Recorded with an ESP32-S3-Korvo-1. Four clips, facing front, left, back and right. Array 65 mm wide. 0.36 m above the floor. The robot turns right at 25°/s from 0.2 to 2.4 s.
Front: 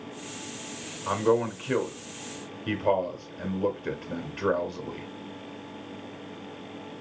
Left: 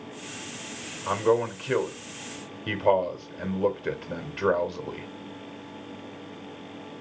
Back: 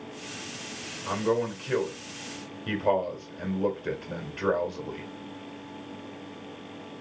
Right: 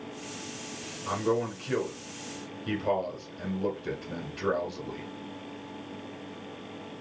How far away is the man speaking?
About 1.3 m.